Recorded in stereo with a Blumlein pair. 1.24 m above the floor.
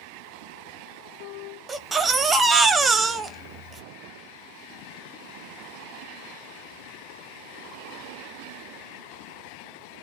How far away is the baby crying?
About 0.6 m.